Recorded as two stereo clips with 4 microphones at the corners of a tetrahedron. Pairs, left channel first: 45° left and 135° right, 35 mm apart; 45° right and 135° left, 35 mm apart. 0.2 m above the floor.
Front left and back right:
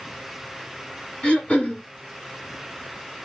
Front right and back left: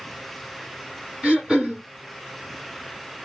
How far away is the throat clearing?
About 2 m.